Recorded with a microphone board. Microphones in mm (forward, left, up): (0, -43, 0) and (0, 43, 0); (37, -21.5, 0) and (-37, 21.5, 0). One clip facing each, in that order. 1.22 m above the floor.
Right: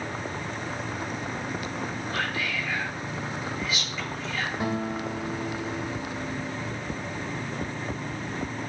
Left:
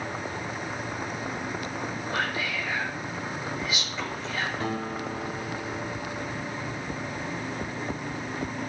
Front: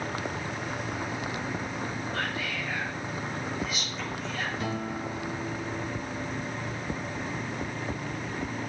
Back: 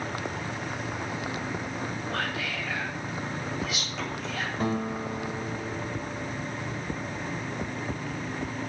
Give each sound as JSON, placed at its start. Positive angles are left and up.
{"t": 2.1, "sound": "whispering", "azimuth_deg": 160, "distance_m": 4.5}
{"t": 4.6, "sound": "a guitar", "azimuth_deg": -160, "distance_m": 2.0}